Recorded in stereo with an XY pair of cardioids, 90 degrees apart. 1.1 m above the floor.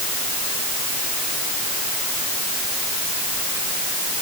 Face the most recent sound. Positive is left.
No sound to turn to.